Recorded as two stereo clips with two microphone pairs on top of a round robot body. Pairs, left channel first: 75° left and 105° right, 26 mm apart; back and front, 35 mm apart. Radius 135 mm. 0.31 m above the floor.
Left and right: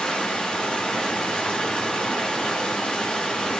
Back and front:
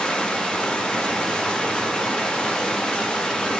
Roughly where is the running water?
Behind left.